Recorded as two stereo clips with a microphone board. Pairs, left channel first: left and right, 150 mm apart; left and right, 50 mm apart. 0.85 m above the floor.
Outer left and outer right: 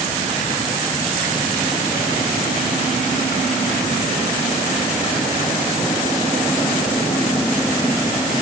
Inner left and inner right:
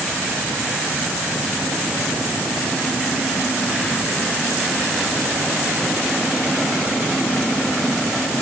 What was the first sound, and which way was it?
Only background noise.